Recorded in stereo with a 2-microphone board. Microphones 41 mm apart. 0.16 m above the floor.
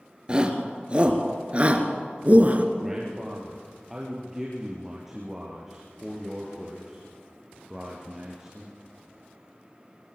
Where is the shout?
25° right (ahead or behind), 3.5 m; by 2.6 s 40° right (ahead or behind), 3 m.